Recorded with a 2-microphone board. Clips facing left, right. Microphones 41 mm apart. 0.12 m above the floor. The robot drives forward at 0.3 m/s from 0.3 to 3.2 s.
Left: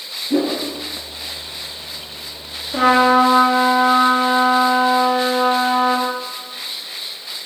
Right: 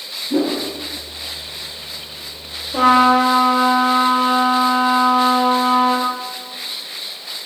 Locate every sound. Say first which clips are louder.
0.3 s a whoosh: even; 35° left (ahead or behind), 0.9 m
2.7 s a trumpet: right 1 dB; 40° left (ahead or behind), 1.4 m